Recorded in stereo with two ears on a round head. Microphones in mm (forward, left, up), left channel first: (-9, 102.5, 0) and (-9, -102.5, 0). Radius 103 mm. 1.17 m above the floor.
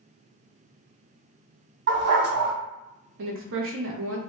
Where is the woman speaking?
60° right (ahead or behind), 0.9 m.